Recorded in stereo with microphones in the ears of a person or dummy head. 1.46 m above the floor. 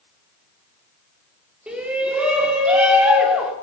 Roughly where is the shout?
Centre.